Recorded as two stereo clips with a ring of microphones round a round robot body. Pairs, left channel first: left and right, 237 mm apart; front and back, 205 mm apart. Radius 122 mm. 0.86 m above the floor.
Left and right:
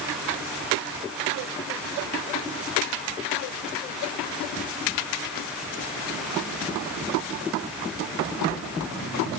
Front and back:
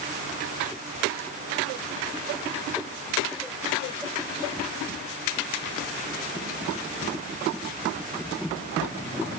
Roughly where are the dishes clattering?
I don't hear dishes clattering.